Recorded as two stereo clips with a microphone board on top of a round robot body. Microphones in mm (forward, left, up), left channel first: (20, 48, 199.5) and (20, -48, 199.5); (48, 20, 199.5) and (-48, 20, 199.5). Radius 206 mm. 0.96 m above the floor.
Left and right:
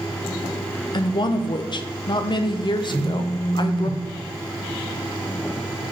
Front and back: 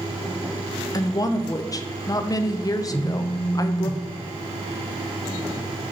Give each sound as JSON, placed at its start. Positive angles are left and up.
{"t": 0.9, "sound": "a woman speaking", "azimuth_deg": 50, "distance_m": 0.6}
{"t": 2.9, "sound": "a phone buzzing", "azimuth_deg": -125, "distance_m": 2.0}